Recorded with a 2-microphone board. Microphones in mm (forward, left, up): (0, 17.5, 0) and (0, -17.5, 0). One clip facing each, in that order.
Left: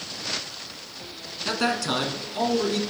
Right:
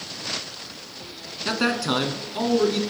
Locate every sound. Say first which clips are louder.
1.4 s a man speaking: right 2 dB; 10° right (ahead or behind), 1.0 m